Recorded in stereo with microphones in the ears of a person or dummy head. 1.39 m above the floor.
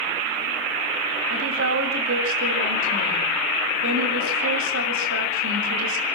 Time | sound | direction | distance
1.3 | a woman speaking | 85° right | 7 m